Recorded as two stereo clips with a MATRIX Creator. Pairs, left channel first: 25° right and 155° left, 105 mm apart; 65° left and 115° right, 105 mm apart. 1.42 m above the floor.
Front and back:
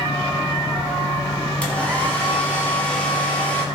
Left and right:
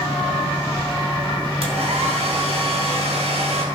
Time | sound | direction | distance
1.6 | a hair dryer | 100° right | 2.5 m